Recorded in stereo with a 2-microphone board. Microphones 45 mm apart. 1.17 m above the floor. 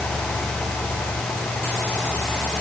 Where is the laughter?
No laughter in this recording.